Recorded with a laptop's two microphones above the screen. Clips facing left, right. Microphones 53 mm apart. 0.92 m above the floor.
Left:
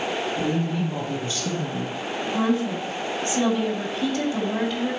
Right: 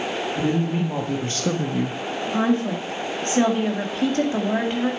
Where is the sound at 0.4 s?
40° right (ahead or behind), 1.6 m; by 2.0 s 55° right (ahead or behind), 0.6 m.